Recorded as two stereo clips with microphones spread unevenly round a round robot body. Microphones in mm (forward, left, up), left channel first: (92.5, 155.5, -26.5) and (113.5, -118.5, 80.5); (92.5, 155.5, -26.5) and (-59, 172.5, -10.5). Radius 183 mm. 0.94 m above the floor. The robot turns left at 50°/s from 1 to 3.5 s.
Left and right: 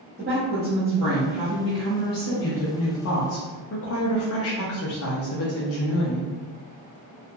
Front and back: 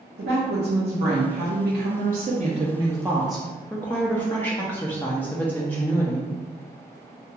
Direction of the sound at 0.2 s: 165° right.